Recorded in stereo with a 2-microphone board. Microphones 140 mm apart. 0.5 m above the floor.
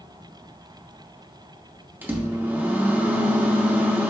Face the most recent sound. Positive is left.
turn(degrees=-15)  # may be behind; listen again after turning